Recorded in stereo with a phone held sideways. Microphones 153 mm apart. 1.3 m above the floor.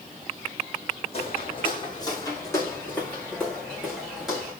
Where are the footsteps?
40° left (ahead or behind), 4.5 m; by 4.5 s 5° right (ahead or behind), 7 m.